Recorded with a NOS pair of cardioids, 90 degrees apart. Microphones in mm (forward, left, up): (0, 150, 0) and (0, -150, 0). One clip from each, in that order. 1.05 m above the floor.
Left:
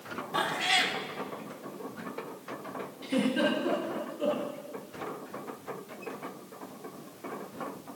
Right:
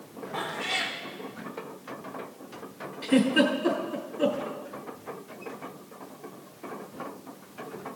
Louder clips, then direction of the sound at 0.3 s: Left 3 dB; 35° left.